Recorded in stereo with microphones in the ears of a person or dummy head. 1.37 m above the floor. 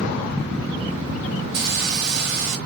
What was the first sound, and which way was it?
A hiss, 55° right (ahead or behind).